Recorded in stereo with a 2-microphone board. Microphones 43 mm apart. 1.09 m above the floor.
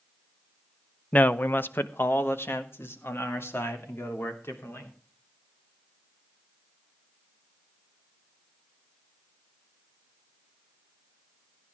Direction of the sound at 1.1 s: 35° left (ahead or behind).